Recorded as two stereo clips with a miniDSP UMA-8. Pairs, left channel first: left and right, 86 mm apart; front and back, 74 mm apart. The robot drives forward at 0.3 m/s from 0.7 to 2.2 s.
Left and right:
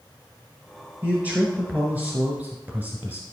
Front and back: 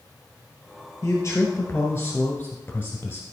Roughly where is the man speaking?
Ahead right.